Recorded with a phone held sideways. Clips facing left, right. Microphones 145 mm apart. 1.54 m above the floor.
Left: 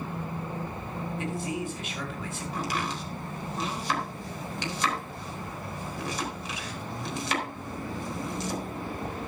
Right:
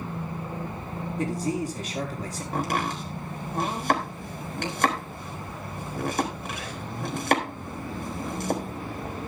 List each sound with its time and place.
1.2 s a man speaking: 40° right (ahead or behind), 5 m
2.5 s chopping: 60° right (ahead or behind), 3.5 m